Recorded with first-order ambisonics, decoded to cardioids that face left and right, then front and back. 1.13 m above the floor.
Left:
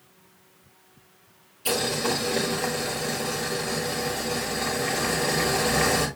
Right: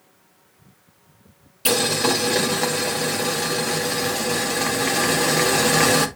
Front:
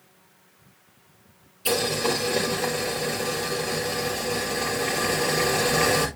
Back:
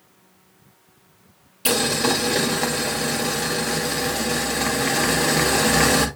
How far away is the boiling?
About 2 m.